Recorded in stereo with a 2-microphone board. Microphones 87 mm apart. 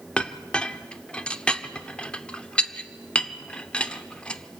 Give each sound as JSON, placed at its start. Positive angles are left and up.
{"t": 0.2, "sound": "a clink", "side_deg": 15, "distance_m": 0.7}